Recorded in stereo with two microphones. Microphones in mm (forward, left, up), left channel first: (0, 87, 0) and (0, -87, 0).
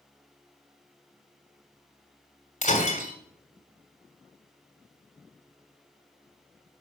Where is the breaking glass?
45° left (ahead or behind), 2.5 m.